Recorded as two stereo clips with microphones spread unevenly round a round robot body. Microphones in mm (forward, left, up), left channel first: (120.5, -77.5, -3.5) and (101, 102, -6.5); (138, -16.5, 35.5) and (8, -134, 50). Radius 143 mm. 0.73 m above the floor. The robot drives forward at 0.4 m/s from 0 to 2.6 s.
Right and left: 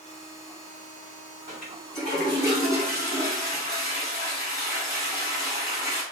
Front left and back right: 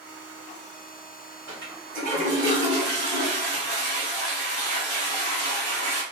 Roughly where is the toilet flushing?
Behind right.